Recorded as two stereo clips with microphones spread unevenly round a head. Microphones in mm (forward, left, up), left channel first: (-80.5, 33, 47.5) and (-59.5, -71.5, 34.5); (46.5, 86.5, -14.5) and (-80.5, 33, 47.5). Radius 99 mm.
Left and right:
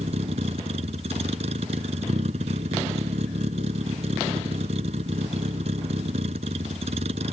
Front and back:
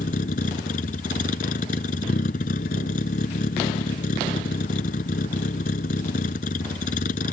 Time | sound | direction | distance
0.0 | a vehicle | 30° right | ?